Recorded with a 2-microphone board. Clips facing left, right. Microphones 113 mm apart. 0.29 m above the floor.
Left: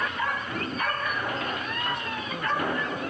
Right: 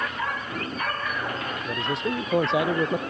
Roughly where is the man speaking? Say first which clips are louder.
Right 4 dB; right.